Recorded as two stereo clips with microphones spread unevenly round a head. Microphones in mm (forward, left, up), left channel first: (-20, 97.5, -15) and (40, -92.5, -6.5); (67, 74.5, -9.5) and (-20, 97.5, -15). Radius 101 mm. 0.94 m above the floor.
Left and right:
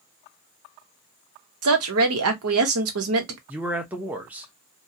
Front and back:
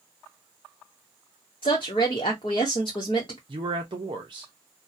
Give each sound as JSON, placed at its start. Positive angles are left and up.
{"t": 1.6, "sound": "a woman speaking", "azimuth_deg": -75, "distance_m": 1.0}
{"t": 3.5, "sound": "a man speaking", "azimuth_deg": -155, "distance_m": 0.7}